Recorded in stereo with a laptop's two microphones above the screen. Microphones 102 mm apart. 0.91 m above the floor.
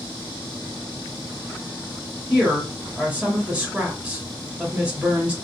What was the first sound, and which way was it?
A woman speaking, 15° right (ahead or behind).